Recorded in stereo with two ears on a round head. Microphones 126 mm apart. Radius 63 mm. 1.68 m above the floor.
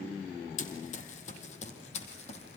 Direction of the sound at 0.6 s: 55° left (ahead or behind).